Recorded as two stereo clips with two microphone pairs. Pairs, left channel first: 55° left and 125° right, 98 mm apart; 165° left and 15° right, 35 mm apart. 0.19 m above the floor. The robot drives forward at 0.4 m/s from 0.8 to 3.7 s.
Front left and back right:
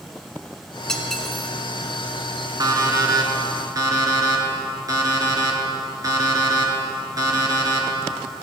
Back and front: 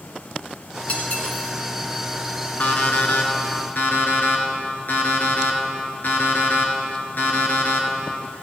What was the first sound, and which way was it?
Cutlery clinking, 135° left.